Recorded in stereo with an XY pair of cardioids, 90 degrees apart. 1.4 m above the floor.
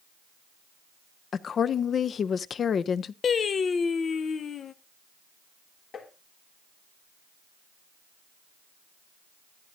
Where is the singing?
55° left, 0.6 m.